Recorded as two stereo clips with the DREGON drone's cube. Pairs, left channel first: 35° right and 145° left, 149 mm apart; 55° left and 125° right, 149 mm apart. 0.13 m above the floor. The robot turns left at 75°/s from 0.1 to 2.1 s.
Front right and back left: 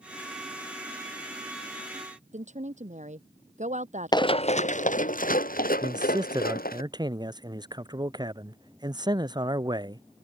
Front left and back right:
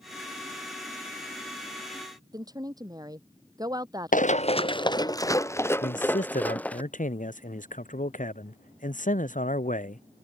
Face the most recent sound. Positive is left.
turn(degrees=85)